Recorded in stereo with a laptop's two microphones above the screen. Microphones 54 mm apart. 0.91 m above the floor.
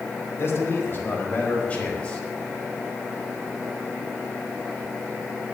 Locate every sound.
0.4 s a man speaking: 45° left (ahead or behind), 4.5 m; by 2.2 s 15° left (ahead or behind), 4 m